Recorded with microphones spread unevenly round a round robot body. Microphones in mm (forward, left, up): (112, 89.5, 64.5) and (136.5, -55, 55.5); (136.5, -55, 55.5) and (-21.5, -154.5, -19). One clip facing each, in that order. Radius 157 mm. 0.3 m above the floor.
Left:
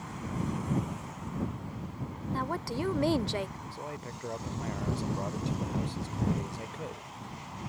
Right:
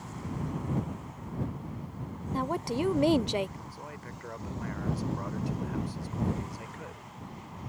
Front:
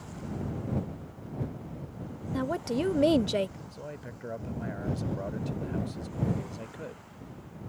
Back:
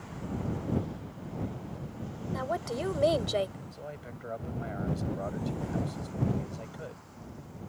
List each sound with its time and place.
2.3 s a woman speaking: 45° right
3.7 s a man speaking: 120° left